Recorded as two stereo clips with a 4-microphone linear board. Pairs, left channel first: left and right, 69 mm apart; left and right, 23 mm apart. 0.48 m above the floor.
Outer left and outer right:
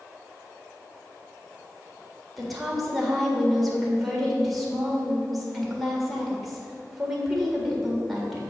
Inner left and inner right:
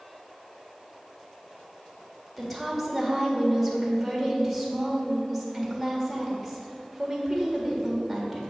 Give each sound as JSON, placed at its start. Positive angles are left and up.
{"t": 2.4, "sound": "a woman speaking", "side_deg": 0, "distance_m": 1.6}